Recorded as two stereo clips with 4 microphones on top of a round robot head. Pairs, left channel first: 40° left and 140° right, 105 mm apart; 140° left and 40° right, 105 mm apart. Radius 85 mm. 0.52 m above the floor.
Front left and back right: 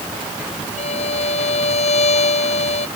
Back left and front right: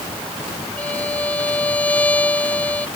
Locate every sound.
0.8 s a violin: 65° left